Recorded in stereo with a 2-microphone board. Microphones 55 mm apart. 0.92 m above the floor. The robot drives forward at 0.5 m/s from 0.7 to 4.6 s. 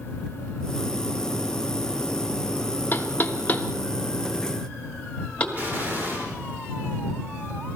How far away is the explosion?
About 3.5 m.